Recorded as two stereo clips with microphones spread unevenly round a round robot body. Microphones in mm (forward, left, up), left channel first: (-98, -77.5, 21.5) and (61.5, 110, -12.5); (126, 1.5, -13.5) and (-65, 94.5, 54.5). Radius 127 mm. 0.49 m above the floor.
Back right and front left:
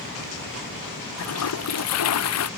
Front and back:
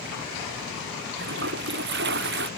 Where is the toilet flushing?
155° right.